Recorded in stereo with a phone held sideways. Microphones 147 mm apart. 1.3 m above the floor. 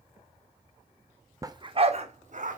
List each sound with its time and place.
1.4 s a dog barking: 20° right (ahead or behind), 0.7 m; by 2.6 s 60° right (ahead or behind), 1.3 m